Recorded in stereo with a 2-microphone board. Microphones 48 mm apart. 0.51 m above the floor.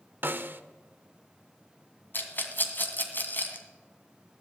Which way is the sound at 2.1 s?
45° left (ahead or behind).